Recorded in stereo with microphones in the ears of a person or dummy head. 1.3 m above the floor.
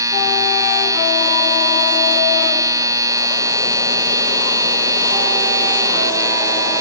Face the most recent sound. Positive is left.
turn(degrees=-20)  # may be behind; listen again after turning